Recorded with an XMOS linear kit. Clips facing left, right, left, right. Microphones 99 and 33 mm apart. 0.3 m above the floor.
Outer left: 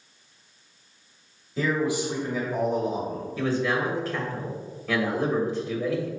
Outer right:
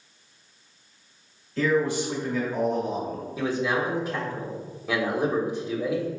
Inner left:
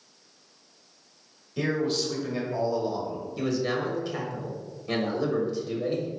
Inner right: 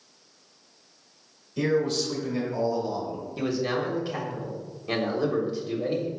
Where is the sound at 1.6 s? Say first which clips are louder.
Outer right 2 dB, inner right 2 dB; 15° left (ahead or behind), 1.4 m.